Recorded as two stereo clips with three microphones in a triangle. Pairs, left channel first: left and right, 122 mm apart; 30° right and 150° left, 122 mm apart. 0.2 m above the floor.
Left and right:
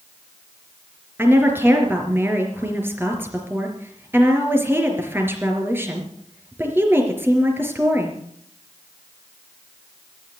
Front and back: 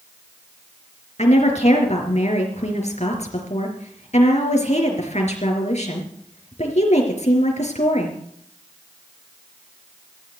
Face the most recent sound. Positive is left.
turn(degrees=-20)